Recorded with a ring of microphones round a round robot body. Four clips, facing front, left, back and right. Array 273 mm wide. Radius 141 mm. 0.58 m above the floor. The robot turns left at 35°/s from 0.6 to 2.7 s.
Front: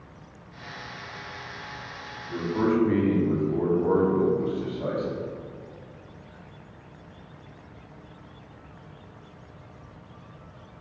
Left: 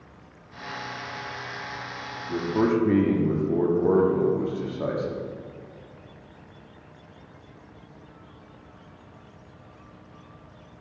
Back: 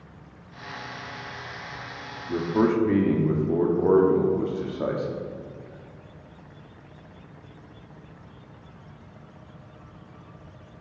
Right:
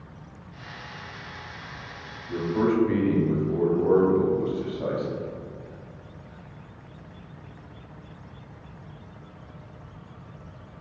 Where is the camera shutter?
No camera shutter in this recording.